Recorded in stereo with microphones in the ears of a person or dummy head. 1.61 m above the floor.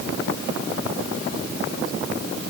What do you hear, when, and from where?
Only background noise.